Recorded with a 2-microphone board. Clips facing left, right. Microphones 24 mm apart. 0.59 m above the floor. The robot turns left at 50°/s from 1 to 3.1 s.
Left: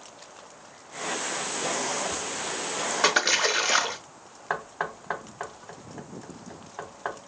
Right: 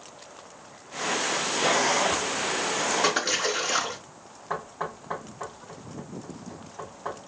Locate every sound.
3.0 s a splash: 30° left (ahead or behind), 0.5 m; by 4.0 s 35° left (ahead or behind), 0.5 m
4.5 s knocking: 55° left (ahead or behind), 0.9 m